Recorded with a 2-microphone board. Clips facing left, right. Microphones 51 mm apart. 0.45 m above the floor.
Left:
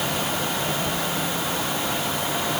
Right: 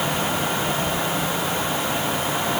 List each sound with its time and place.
Only background noise.